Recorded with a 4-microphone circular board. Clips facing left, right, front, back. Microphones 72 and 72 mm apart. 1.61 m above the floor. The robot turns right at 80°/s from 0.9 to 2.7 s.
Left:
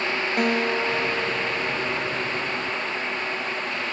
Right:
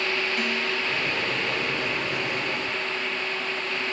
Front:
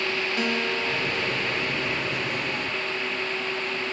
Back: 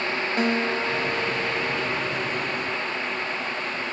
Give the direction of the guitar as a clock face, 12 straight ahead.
8 o'clock.